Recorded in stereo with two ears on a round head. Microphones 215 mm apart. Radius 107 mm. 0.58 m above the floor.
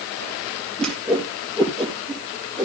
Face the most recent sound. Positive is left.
turn(degrees=5)  # may be behind; listen again after turning